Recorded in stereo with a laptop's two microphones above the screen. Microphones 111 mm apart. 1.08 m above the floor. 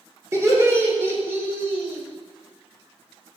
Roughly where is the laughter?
Right.